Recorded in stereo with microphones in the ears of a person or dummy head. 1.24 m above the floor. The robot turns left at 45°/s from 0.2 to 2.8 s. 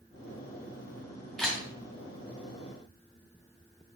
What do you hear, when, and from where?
1.4 s a camera shutter: centre (ahead or behind), 2 m; by 1.6 s 10° left (ahead or behind), 2 m